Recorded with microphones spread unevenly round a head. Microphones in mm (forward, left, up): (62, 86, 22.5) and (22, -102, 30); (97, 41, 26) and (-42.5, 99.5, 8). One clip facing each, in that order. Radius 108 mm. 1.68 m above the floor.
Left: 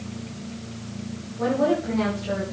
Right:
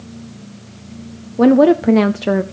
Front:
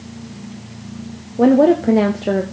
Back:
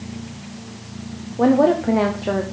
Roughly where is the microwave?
No microwave in this recording.